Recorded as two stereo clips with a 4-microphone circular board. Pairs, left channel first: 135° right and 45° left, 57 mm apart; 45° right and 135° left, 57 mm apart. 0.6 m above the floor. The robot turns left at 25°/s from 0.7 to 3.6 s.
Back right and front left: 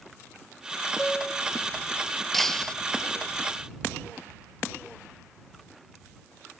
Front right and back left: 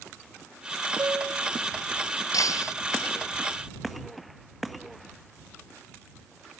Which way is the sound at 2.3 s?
50° right.